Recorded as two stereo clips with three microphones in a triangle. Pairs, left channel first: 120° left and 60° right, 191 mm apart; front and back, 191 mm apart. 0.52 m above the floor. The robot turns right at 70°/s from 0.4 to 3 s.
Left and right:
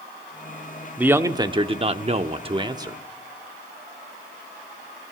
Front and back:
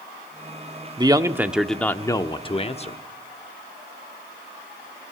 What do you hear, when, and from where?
1.0 s a man speaking: 135° right, 0.8 m; by 3.0 s 5° left, 0.8 m